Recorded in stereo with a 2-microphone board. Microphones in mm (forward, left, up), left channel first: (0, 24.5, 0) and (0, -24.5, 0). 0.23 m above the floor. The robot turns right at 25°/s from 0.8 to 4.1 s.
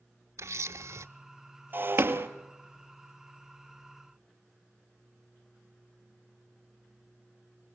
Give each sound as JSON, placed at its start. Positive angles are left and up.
{"t": 0.4, "sound": "a camera shutter", "side_deg": -85, "distance_m": 0.6}
{"t": 1.7, "sound": "breaking glass", "side_deg": -45, "distance_m": 1.5}